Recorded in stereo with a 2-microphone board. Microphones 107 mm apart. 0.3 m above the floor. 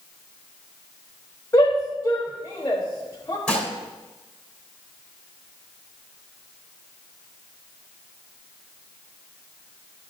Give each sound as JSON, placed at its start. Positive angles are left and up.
{"t": 1.5, "sound": "a shout", "side_deg": 25, "distance_m": 1.3}
{"t": 3.5, "sound": "dishes clattering", "side_deg": 10, "distance_m": 2.5}